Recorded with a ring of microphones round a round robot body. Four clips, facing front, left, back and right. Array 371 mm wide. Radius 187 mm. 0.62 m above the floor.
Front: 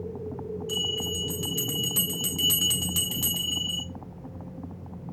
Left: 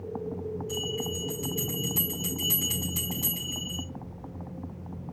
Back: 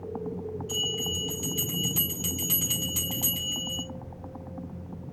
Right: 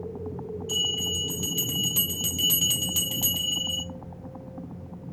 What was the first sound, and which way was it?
A bell, 70° right.